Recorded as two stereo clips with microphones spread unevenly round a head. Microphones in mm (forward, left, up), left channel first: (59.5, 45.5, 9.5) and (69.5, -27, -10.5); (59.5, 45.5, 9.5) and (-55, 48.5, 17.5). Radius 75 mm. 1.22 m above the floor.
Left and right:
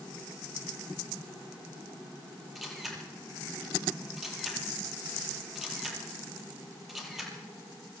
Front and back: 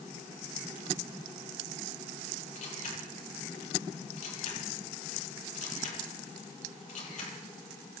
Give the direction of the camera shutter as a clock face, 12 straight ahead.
12 o'clock.